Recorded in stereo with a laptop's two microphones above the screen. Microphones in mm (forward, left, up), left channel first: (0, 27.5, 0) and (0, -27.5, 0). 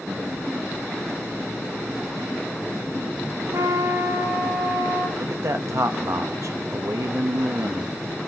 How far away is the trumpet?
About 2 m.